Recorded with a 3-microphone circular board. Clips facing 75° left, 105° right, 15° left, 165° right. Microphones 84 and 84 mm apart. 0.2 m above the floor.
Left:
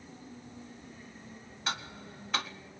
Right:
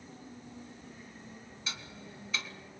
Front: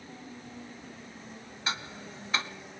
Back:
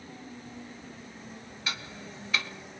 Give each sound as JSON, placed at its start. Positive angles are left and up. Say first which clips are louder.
{"t": 1.7, "sound": "ticking", "louder": "left 8 dB, front 3 dB", "azimuth_deg": 70, "distance_m": 0.8}